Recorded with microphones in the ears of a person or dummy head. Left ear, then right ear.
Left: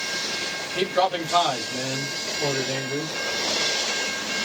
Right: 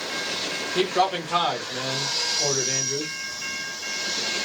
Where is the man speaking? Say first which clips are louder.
Even; 20° right (ahead or behind), 1.0 m.